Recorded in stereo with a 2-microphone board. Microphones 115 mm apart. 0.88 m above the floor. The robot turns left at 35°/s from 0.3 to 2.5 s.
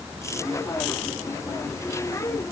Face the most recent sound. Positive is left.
No sound to turn to.